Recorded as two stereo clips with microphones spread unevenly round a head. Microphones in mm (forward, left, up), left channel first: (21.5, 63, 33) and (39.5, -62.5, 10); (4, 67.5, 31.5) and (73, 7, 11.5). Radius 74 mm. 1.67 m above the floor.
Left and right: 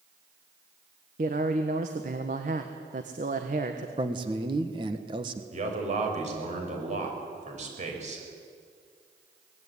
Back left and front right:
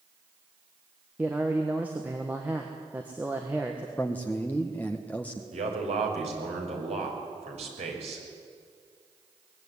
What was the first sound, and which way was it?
A man speaking, 125° right.